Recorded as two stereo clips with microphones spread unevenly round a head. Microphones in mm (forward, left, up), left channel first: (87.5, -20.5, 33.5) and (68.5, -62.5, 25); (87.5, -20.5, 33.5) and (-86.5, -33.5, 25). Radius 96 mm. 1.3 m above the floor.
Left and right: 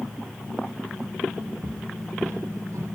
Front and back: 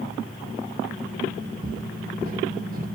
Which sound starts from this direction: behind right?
Footsteps, at 1.6 s.